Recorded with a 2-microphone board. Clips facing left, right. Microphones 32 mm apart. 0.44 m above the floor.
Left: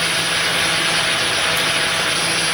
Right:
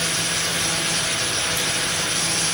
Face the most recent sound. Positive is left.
No sound to turn to.